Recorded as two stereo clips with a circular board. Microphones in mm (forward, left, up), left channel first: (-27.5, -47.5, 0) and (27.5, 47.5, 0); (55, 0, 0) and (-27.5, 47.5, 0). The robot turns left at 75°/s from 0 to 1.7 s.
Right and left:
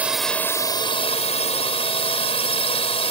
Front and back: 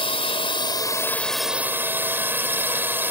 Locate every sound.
0.0 s a drone: 15° right; by 3.1 s 145° right